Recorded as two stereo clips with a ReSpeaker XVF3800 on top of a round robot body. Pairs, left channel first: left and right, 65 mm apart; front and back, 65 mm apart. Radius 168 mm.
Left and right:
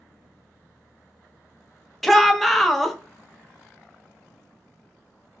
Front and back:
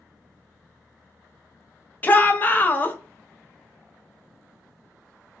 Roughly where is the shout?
Ahead.